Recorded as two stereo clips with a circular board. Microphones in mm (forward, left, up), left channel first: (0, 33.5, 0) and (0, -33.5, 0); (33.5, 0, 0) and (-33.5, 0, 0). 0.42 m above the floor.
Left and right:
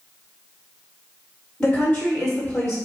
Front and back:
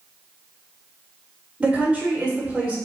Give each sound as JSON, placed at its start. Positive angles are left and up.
{"t": 1.6, "sound": "a woman speaking", "azimuth_deg": 140, "distance_m": 1.2}